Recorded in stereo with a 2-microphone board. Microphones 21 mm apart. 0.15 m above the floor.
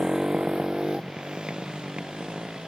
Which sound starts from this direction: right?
A motorcycle, at 0.0 s.